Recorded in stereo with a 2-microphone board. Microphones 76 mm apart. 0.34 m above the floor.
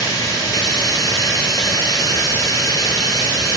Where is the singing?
I don't hear singing.